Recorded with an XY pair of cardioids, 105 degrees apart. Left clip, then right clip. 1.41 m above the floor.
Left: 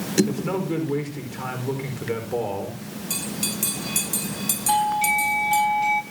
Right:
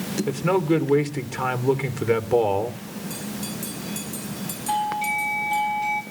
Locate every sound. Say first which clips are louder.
0.3 s a man speaking: right 5 dB; 50° right, 4.5 m
3.1 s a bell: left 6 dB; 65° left, 3 m
4.7 s a doorbell: left 3 dB; 15° left, 5.5 m